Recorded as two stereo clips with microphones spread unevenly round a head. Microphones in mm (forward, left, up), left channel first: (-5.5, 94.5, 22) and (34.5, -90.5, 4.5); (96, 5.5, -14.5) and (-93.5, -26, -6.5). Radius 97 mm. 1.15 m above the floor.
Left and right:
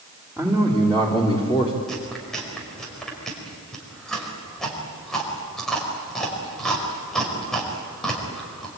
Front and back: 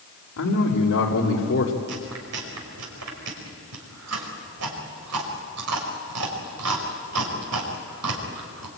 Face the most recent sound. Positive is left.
turn(degrees=-170)